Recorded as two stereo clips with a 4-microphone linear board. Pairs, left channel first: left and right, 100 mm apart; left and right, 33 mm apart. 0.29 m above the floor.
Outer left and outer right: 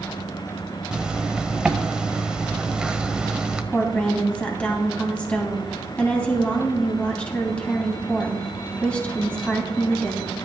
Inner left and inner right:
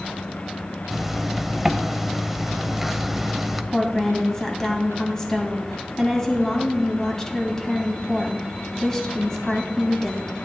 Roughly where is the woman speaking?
Centre.